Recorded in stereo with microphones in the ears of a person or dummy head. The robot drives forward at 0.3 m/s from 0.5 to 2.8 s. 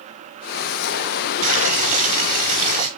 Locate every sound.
1.4 s boiling: 45° right (ahead or behind), 3 m; by 2.9 s 40° right (ahead or behind), 3 m